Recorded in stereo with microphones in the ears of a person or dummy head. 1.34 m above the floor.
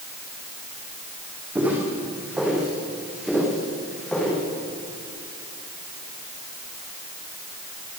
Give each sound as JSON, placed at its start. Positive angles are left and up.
{"t": 1.6, "sound": "footsteps", "side_deg": -10, "distance_m": 5.0}